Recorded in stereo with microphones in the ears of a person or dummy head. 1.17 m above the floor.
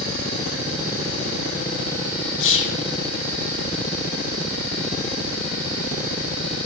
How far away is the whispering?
About 1.0 m.